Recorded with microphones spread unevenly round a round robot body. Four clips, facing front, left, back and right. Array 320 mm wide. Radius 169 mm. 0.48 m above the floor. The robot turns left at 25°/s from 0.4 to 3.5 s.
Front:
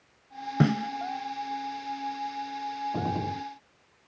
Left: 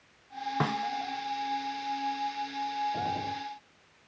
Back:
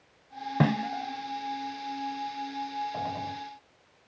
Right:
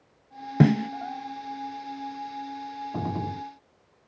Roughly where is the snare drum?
Right.